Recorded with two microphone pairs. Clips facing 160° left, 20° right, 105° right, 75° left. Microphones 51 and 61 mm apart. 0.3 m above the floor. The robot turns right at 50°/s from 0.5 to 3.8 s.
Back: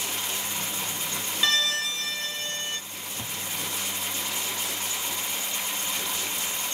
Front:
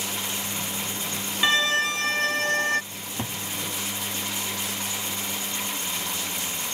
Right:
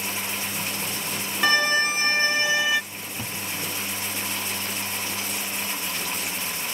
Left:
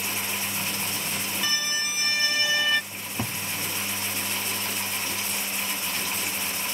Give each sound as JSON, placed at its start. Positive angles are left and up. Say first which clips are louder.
{"t": 1.4, "sound": "a violin", "louder": "front 4 dB, right 12 dB", "azimuth_deg": -85}
{"t": 2.9, "sound": "a cupboard door", "louder": "front 3 dB, left 2 dB", "azimuth_deg": 15}